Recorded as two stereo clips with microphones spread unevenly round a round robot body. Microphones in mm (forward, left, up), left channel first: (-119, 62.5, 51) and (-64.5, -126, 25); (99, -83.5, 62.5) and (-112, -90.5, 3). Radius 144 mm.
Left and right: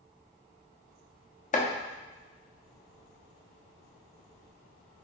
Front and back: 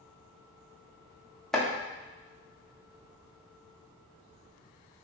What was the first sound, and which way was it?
Chopping, 120° left.